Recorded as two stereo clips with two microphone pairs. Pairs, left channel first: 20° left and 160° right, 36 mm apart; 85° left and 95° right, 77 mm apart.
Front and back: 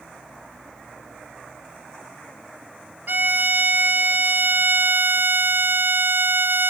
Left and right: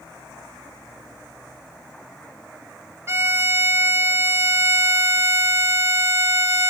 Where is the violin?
145° right, 0.7 m.